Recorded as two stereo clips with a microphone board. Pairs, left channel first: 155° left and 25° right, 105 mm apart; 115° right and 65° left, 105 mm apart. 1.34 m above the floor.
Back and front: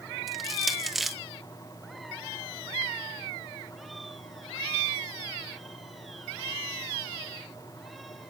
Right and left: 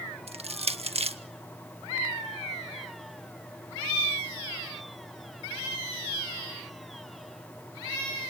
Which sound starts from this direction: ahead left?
Crushing, at 0.3 s.